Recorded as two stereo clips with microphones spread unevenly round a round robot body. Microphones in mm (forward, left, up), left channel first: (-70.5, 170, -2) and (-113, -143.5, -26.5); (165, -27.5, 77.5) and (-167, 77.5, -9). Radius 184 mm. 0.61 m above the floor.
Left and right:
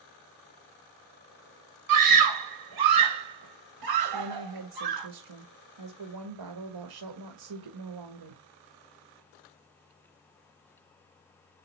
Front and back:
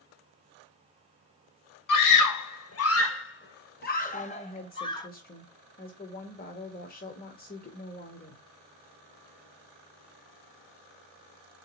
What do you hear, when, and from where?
1.9 s a scream: 60° right, 2.5 m; by 5.1 s 100° right, 3 m
4.1 s a woman speaking: 90° right, 2.0 m